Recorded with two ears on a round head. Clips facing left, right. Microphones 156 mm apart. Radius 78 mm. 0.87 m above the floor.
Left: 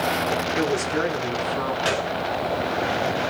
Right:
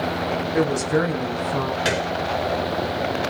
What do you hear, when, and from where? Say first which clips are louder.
0.5 s a woman speaking: right 6 dB; 75° right (ahead or behind), 7 m; by 1.8 s 70° right (ahead or behind), 6.5 m
1.9 s a gunshot: right 1 dB; 20° right (ahead or behind), 2.5 m